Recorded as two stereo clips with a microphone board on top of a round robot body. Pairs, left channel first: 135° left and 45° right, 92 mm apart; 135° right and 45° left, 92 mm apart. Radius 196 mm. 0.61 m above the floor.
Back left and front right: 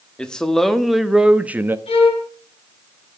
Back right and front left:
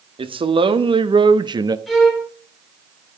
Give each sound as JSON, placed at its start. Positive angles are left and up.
{"t": 0.2, "sound": "a man speaking", "azimuth_deg": 55, "distance_m": 1.8}
{"t": 1.9, "sound": "a violin", "azimuth_deg": 135, "distance_m": 5.0}